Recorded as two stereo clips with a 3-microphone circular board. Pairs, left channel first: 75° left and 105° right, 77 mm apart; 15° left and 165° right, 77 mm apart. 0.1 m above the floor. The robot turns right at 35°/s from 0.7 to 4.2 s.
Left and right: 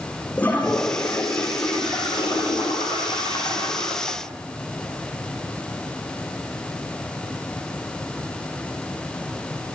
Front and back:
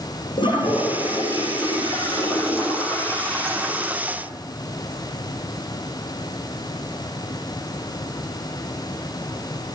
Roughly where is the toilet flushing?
Ahead.